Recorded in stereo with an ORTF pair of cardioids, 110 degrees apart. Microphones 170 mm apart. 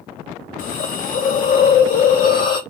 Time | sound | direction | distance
0.6 | a hiss | 55° left | 3 m